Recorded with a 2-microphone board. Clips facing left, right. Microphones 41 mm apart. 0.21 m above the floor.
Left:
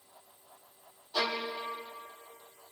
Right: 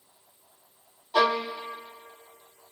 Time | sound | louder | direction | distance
1.1 | a violin | right 9 dB | 55° right (ahead or behind) | 1.7 m